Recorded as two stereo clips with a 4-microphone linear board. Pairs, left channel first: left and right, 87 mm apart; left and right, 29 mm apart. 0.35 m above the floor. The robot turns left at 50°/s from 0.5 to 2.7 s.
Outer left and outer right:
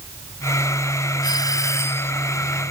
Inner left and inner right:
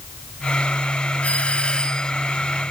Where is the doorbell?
70° left; by 2.1 s 25° left.